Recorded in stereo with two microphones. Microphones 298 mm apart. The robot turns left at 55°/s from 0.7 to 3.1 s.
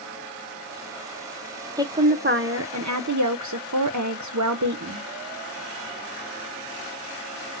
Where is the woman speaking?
10° right, 0.5 m; by 5.0 s 85° right, 0.5 m.